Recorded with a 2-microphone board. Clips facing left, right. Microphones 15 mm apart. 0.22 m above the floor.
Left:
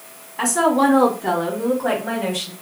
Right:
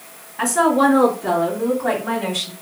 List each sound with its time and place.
0.4 s a woman speaking: 30° left (ahead or behind), 2.0 m; by 2.5 s centre (ahead or behind), 1.5 m